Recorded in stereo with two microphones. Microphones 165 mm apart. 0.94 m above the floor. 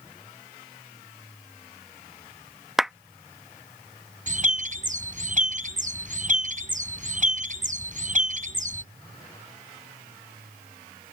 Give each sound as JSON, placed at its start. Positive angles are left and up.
{"t": 2.8, "sound": "a clap", "side_deg": 0}
{"t": 4.3, "sound": "a bird", "side_deg": -50}